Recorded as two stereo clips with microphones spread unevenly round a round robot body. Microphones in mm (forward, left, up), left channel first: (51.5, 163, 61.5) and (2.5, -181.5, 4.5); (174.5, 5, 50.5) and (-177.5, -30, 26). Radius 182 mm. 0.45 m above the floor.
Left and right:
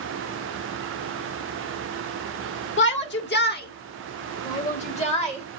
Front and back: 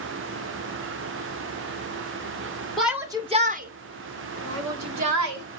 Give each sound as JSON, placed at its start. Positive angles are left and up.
{"t": 2.8, "sound": "a shout", "azimuth_deg": 105, "distance_m": 1.4}